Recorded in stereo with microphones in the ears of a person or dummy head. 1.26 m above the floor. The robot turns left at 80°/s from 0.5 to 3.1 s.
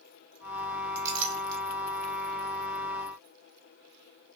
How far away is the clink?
About 1.0 m.